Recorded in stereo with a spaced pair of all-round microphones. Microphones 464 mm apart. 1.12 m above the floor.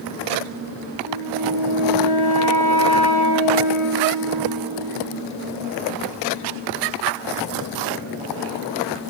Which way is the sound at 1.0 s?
40° right (ahead or behind).